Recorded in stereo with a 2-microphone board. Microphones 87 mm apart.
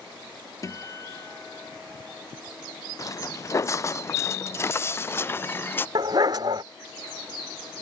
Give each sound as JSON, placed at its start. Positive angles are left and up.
{"t": 0.6, "sound": "a guitar", "side_deg": 40}
{"t": 3.0, "sound": "footsteps", "side_deg": 40}
{"t": 6.0, "sound": "a dog barking", "side_deg": -55}